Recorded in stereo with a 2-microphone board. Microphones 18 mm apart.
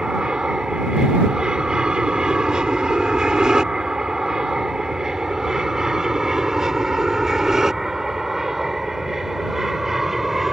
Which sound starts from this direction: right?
An aircraft, at 0.0 s.